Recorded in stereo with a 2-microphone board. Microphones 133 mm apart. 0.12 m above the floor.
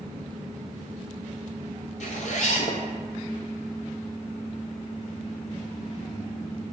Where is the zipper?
65° left (ahead or behind), 0.5 m.